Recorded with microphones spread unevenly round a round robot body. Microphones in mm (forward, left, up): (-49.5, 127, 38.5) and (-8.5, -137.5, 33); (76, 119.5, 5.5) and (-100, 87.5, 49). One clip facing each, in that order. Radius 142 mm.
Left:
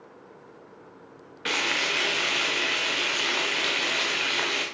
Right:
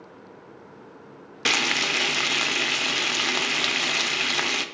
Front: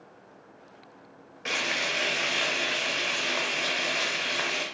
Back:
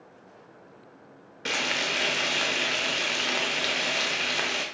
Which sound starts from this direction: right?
Frying, at 1.4 s.